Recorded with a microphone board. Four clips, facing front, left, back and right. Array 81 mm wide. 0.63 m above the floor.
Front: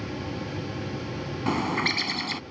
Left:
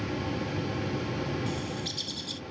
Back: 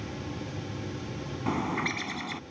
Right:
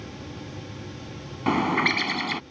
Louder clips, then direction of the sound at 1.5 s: Right 12 dB, front 3 dB; 75° right.